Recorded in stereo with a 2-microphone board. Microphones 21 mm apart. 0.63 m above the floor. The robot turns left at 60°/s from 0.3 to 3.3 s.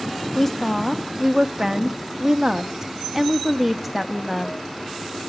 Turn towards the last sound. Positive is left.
turn(degrees=-155)